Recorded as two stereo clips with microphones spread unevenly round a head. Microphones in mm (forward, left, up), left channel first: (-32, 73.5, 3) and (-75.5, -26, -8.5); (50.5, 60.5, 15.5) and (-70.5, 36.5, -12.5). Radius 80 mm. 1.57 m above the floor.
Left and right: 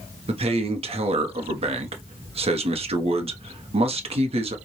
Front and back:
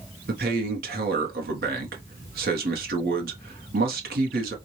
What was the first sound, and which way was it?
A man speaking, 145° right.